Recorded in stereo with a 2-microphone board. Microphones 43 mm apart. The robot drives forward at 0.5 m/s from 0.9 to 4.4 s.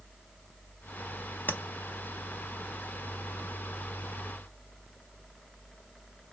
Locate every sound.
1.5 s tapping: 60° left (ahead or behind), 0.7 m; by 1.6 s 55° left (ahead or behind), 0.7 m